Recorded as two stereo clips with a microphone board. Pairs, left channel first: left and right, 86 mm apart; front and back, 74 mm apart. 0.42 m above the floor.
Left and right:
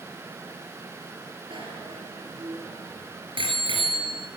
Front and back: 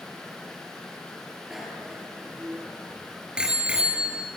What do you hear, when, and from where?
1.5 s a bicycle bell: 95° right, 6 m; by 4.3 s 105° right, 5 m